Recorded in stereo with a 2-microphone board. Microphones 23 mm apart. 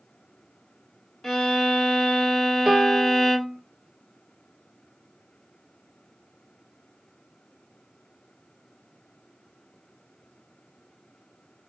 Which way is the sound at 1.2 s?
10° left (ahead or behind).